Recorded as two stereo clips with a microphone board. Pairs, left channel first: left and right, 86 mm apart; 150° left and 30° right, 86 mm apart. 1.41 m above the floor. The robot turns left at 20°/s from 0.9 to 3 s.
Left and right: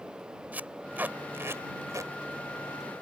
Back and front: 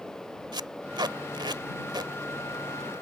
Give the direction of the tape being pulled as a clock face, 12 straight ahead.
1 o'clock.